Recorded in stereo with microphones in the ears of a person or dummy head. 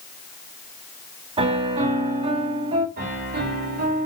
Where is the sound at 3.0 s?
45° right (ahead or behind), 3 m.